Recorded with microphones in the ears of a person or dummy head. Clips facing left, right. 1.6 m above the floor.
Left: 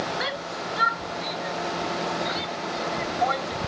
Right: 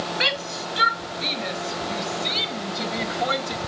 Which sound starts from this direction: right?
A shout, at 0.2 s.